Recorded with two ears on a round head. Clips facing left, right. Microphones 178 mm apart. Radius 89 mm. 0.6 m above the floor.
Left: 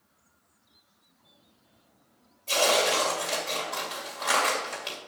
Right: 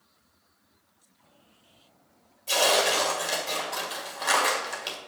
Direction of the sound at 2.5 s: 10° right (ahead or behind).